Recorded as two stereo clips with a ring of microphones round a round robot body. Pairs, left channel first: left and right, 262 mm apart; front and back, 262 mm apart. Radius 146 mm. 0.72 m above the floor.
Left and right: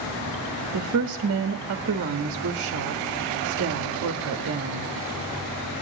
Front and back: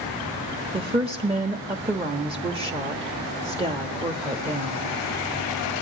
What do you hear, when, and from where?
0.7 s a woman speaking: 110° right, 1.2 m